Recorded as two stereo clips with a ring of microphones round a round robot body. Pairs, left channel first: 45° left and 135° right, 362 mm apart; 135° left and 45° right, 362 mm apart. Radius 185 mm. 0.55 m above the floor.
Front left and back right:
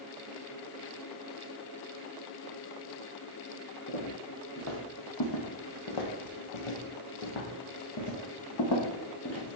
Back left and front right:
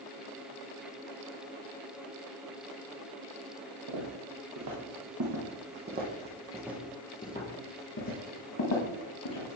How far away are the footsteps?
About 2.5 m.